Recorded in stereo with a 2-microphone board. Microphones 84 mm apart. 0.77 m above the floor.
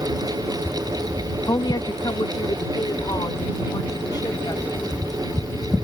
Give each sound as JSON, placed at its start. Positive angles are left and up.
{"t": 1.5, "sound": "a woman speaking", "side_deg": 50}